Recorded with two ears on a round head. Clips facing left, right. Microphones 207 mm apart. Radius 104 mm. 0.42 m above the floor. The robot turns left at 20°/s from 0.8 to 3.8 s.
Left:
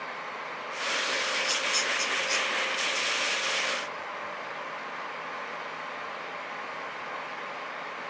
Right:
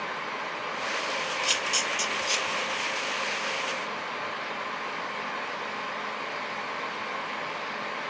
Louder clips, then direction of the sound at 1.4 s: Right 1 dB; 50° right (ahead or behind).